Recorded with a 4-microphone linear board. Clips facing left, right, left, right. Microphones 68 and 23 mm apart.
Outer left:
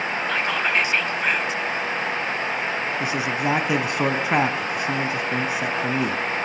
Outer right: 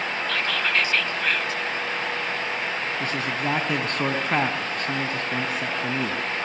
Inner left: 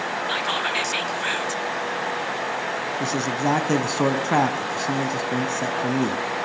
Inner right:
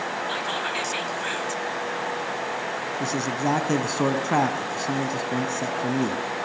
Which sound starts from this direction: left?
Whispering, at 0.3 s.